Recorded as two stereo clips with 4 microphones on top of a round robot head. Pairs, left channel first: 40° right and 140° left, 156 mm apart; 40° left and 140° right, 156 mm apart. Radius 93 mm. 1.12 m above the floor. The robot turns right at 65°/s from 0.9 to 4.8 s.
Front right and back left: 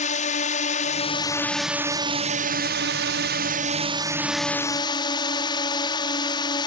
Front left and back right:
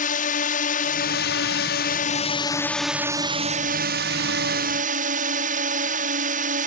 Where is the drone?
5° left; by 6.7 s 105° right.